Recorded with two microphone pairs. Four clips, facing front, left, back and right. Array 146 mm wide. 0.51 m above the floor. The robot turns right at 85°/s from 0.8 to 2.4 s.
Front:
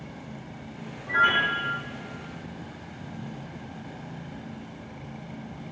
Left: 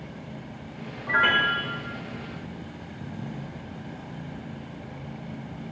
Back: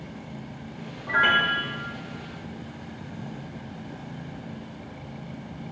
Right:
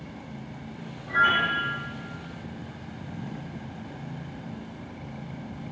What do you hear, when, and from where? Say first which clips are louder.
1.1 s a piano: even, back 1 dB; 115° left, 1.8 m; by 1.8 s 175° left, 1.8 m